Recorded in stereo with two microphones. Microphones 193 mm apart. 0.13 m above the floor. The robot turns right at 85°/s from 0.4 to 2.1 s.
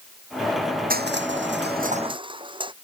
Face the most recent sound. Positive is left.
turn(degrees=-25)